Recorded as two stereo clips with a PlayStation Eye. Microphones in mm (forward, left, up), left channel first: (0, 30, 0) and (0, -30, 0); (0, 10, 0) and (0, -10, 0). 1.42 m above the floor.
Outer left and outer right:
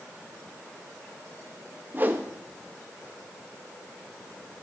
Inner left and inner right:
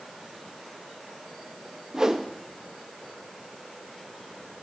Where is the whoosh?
30° right (ahead or behind), 0.9 m.